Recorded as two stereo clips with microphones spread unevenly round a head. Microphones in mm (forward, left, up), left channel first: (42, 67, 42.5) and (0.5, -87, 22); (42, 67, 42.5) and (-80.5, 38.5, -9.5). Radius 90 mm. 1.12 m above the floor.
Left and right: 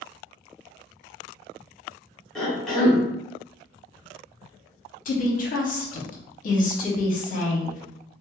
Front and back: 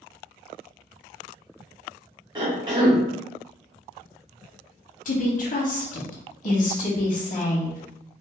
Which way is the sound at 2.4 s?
165° left.